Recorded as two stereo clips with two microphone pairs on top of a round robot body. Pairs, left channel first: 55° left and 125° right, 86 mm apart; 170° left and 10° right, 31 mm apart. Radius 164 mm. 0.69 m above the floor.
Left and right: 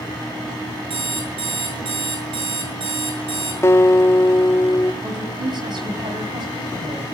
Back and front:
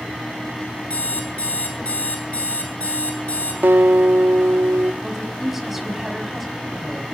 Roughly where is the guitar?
Ahead.